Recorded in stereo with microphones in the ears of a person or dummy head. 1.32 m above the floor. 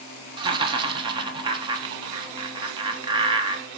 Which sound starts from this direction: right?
Laughter, at 0.4 s.